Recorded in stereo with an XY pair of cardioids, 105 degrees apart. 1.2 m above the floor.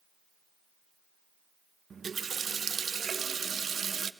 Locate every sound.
1.9 s a running tap: 40° right, 0.7 m